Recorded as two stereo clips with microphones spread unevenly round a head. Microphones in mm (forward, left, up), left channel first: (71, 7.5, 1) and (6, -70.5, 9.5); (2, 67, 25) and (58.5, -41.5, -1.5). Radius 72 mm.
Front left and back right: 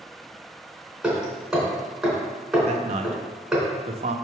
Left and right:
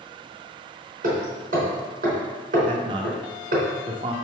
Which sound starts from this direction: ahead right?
Hammering, at 1.0 s.